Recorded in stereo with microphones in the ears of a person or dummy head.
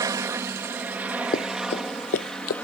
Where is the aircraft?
15° right (ahead or behind); by 2.6 s 5° left (ahead or behind).